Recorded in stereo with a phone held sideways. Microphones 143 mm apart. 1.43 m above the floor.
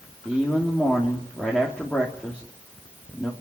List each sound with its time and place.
0.2 s a man speaking: 5° left (ahead or behind), 3 m